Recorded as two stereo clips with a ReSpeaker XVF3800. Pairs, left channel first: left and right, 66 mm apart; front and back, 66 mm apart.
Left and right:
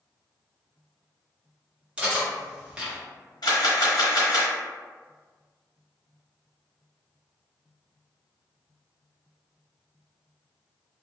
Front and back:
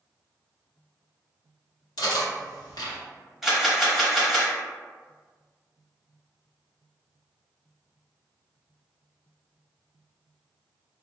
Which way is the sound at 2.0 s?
15° right.